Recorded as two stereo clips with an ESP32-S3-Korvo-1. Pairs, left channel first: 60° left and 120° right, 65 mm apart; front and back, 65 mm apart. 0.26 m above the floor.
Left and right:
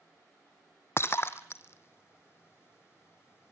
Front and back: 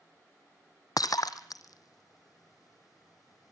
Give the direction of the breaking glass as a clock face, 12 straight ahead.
12 o'clock.